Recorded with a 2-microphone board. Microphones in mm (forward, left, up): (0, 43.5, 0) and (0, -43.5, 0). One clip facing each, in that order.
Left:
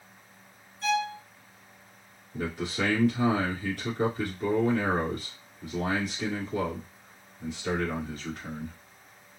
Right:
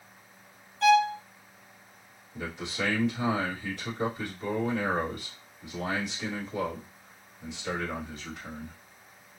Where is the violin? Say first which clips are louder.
Right 7 dB; 85° right, 0.6 m.